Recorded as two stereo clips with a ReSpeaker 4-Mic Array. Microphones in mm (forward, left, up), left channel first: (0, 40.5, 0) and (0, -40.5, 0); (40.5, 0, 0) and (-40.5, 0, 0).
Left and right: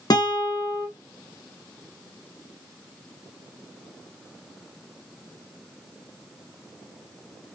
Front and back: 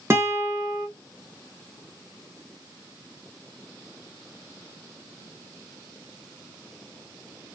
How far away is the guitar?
About 1.5 m.